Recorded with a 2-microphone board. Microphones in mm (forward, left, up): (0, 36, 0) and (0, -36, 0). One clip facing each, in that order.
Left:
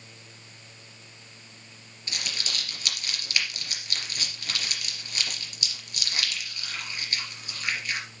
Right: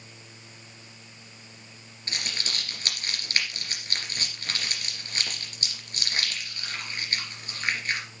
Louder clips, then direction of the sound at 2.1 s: Right 1 dB; 40° right (ahead or behind).